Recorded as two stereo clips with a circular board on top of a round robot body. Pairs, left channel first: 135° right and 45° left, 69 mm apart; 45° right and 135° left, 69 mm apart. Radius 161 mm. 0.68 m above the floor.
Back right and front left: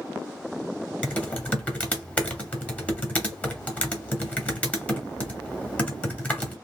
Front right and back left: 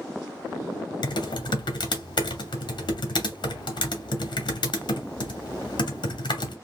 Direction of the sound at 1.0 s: 60° right.